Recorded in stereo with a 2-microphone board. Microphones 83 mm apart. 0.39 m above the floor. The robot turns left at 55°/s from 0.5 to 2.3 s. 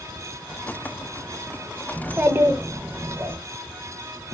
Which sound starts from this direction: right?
A child speaking, at 1.9 s.